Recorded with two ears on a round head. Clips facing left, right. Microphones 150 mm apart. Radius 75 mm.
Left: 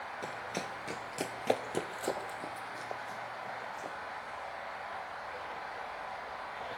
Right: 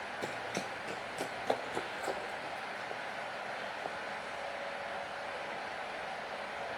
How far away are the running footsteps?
About 0.9 m.